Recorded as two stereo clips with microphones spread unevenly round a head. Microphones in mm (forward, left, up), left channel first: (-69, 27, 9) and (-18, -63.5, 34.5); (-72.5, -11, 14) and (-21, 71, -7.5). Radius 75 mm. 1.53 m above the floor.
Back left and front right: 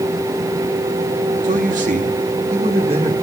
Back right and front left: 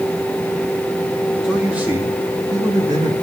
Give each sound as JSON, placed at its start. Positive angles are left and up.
{"t": 1.4, "sound": "a man speaking", "azimuth_deg": -30, "distance_m": 2.5}